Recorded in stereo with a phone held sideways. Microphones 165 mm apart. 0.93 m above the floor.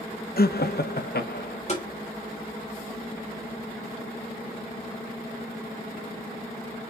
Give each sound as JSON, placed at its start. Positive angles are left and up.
{"t": 0.4, "sound": "laughter", "side_deg": 70, "distance_m": 1.0}
{"t": 1.7, "sound": "tapping", "side_deg": 45, "distance_m": 3.5}